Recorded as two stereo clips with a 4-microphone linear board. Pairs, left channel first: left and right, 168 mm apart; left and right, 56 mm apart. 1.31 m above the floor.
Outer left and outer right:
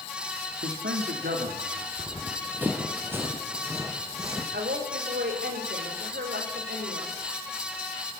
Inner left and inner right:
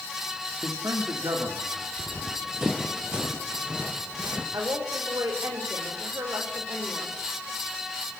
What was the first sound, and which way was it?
A man speaking, 85° right.